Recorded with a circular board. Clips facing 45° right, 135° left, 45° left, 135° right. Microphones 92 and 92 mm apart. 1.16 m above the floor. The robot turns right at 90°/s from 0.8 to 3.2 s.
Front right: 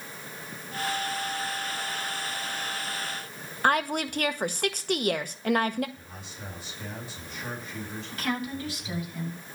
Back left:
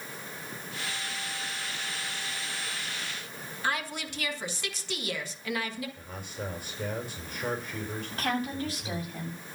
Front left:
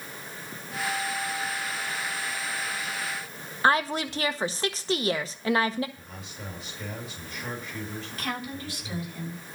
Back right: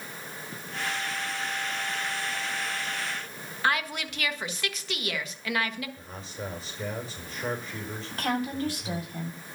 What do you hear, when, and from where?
3.6 s a woman speaking: 10° right, 1.5 m
6.0 s a man speaking: 170° left, 4.5 m
8.1 s a woman speaking: 175° right, 8 m